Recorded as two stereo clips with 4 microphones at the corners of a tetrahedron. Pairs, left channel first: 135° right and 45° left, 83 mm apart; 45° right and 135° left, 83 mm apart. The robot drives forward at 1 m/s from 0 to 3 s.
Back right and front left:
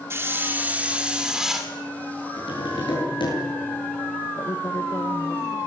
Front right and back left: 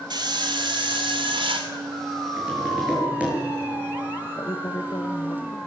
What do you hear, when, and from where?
0.1 s a hiss: 105° left, 2.5 m; by 1.7 s 130° left, 3.5 m
2.4 s tapping: 150° right, 10 m
4.3 s a woman speaking: 85° right, 1.7 m